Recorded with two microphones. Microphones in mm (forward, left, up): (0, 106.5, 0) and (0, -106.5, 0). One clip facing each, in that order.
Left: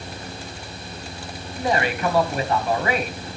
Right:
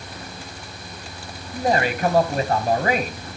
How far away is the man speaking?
About 1.4 m.